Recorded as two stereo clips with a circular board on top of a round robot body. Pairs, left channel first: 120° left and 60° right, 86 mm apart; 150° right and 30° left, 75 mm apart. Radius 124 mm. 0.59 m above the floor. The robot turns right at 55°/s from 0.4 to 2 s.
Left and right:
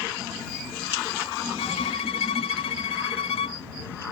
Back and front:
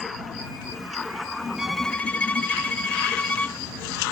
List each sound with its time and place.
1.6 s a violin: 115° left; by 3.6 s 135° left